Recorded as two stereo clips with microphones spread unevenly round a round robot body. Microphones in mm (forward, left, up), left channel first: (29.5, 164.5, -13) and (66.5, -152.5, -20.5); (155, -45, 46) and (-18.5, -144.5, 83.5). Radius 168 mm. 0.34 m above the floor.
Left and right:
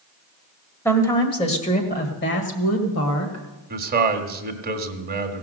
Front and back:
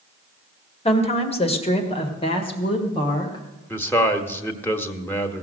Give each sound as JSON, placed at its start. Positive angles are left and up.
{"t": 0.8, "sound": "a woman speaking", "azimuth_deg": 15, "distance_m": 1.8}
{"t": 3.7, "sound": "a man speaking", "azimuth_deg": -35, "distance_m": 1.6}